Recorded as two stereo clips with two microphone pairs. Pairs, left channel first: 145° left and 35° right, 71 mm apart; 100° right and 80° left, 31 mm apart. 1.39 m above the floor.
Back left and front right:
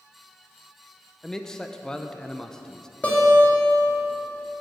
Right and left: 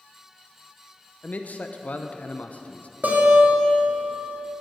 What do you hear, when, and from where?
1.2 s a man speaking: 135° right, 0.6 m
3.0 s a guitar: 75° left, 2.5 m